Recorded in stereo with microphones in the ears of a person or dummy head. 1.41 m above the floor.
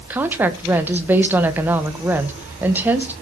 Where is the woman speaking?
10° right (ahead or behind), 1.2 m.